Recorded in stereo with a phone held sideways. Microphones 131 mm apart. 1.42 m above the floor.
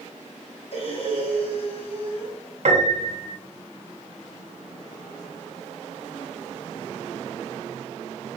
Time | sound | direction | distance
0.7 | breathing | 50° left (ahead or behind) | 1.1 m
2.6 | a piano | 60° right (ahead or behind) | 0.8 m